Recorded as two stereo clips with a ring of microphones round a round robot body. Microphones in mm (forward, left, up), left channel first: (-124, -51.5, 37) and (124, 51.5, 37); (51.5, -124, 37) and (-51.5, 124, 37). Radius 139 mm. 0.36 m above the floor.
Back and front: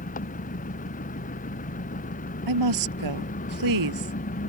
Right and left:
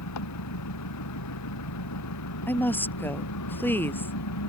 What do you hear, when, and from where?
0.0 s an engine running: 95° right
2.5 s a woman speaking: 15° left